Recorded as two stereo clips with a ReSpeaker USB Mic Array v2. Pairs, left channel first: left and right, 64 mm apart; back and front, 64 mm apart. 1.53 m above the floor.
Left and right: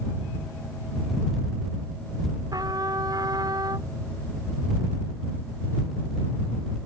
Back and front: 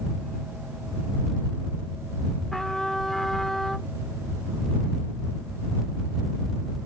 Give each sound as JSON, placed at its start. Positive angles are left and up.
{"t": 2.5, "sound": "a trumpet", "azimuth_deg": -95}